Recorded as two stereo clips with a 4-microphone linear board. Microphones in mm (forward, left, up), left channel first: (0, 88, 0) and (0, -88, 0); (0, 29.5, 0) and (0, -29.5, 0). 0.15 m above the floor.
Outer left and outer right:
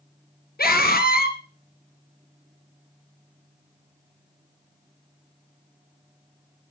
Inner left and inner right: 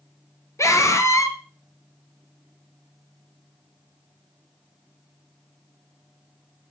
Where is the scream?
60° left (ahead or behind), 2.5 m.